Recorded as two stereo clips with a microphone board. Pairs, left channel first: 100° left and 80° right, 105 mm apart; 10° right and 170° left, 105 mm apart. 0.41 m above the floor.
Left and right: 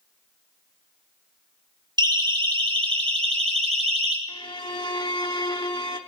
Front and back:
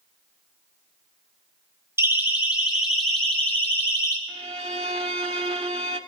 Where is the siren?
125° right, 3.5 m; by 4.2 s 70° right, 3.5 m.